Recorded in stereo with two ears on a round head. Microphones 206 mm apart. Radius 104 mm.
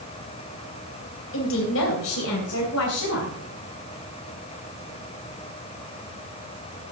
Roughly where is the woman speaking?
Left.